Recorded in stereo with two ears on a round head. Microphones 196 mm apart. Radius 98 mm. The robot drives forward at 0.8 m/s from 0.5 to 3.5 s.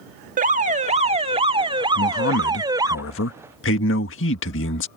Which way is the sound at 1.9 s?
60° left (ahead or behind).